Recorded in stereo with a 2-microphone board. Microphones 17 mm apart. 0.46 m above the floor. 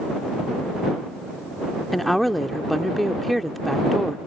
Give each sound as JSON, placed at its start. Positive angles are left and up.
{"t": 1.9, "sound": "a woman speaking", "side_deg": 5}